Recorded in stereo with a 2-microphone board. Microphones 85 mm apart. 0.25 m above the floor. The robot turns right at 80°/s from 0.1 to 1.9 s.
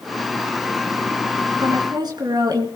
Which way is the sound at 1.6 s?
70° right (ahead or behind).